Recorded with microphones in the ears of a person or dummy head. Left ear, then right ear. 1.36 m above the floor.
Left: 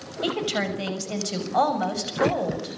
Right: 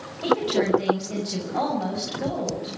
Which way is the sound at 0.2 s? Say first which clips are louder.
Right 4 dB; 40° left (ahead or behind).